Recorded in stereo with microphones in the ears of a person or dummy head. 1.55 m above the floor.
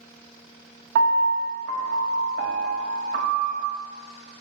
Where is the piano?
55° right (ahead or behind), 1.3 m.